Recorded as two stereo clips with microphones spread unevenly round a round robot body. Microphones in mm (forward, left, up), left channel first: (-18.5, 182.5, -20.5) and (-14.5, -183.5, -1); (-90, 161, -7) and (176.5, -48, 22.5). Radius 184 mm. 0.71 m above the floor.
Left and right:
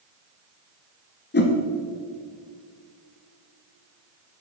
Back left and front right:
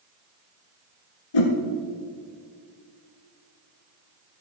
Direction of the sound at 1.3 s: 155° left.